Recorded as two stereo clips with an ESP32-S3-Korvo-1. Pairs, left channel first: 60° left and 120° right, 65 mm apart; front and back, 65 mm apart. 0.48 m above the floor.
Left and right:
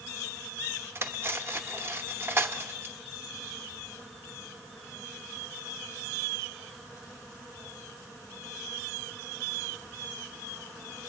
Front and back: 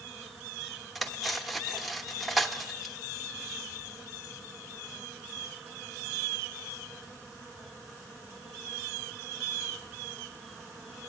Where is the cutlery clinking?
90° right, 0.6 m.